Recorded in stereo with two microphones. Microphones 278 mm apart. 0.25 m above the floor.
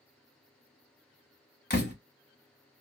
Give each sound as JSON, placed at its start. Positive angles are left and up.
{"t": 1.7, "sound": "a door slam", "side_deg": 35, "distance_m": 1.0}